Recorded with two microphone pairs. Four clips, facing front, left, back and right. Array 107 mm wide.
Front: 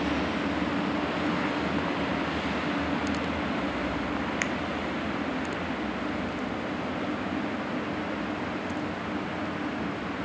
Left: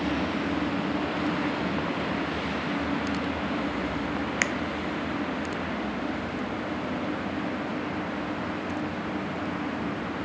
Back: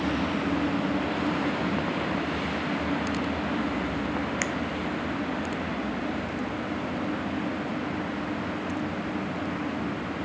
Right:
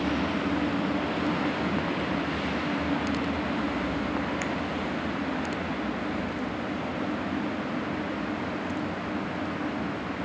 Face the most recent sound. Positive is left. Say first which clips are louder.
# left 2 dB, back 1 dB
turn(degrees=90)